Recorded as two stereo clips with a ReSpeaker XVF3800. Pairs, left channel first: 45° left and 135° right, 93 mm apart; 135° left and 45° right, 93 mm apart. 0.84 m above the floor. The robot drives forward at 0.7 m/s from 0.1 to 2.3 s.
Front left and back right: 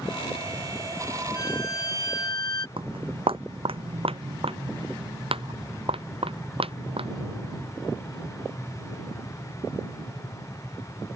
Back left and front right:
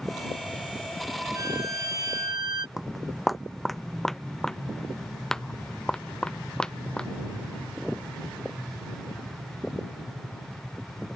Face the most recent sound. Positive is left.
turn(degrees=-145)